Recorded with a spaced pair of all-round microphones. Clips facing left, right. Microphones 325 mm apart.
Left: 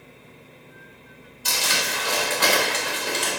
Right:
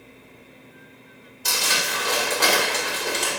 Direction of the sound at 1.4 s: 55° right (ahead or behind).